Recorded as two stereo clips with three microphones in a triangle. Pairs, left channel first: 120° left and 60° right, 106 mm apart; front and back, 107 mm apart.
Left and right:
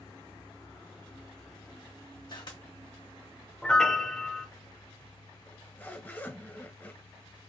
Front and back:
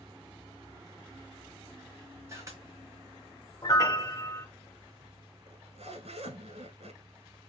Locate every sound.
2.3 s a camera shutter: 130° left, 1.4 m
3.6 s a piano: 40° left, 0.7 m
5.5 s a zipper: 170° right, 0.9 m